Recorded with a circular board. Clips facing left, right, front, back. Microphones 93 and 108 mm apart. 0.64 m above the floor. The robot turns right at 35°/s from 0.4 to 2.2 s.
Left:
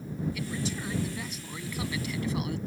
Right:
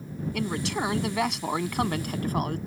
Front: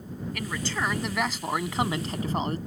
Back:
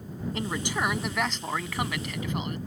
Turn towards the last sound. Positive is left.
turn(degrees=-50)